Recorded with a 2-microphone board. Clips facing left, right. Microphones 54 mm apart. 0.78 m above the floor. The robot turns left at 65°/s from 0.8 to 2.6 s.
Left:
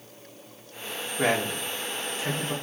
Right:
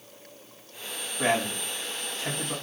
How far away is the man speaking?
About 2 m.